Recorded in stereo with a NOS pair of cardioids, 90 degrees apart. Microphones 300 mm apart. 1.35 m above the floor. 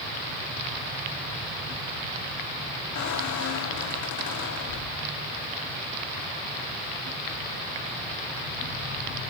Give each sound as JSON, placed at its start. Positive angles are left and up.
{"t": 3.0, "sound": "a squeak", "azimuth_deg": 65, "distance_m": 2.5}